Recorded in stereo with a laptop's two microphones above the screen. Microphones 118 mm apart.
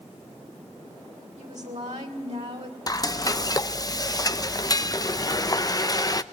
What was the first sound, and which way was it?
A woman speaking, 70° right (ahead or behind).